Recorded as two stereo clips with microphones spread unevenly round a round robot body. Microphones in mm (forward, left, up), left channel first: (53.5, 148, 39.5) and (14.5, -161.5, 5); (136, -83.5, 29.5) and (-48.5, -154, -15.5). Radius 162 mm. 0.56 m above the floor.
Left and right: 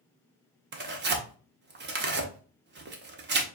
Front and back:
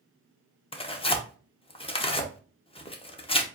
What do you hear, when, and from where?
0.7 s tearing paper: 50° right, 1.0 m